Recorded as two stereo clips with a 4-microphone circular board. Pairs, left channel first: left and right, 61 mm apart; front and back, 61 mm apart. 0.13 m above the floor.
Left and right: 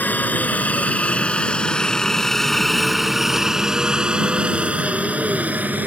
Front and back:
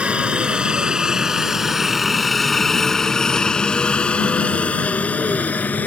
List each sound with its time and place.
0.0 s a helicopter: 120° left; by 5.9 s 45° right